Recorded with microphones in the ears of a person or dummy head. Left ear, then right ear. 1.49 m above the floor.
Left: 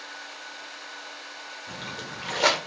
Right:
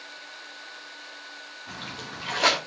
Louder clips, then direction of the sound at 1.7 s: Even; centre (ahead or behind).